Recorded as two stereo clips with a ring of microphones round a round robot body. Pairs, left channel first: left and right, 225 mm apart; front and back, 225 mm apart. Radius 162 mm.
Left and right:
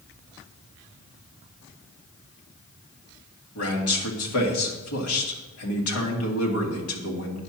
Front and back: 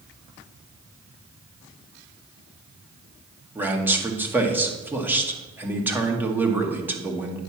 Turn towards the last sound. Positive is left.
turn(degrees=100)